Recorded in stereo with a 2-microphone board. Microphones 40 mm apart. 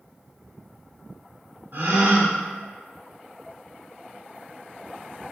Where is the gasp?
50° right (ahead or behind), 0.7 m.